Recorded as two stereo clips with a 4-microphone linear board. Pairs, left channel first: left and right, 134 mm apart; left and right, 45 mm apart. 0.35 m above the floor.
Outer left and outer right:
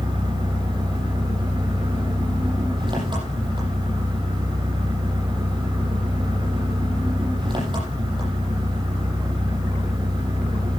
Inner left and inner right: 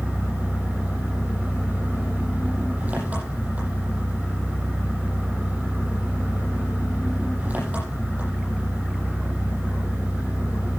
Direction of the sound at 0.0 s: 35° right (ahead or behind).